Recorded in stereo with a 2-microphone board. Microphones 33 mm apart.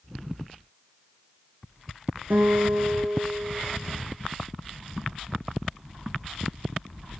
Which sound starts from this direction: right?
A guitar, at 2.3 s.